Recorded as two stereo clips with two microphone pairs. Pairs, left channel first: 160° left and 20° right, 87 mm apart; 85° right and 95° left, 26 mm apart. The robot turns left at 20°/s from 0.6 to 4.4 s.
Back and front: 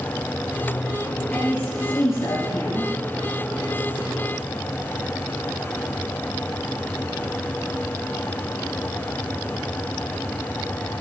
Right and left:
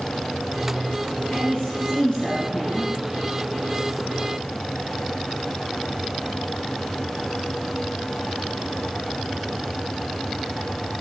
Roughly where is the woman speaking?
Behind right.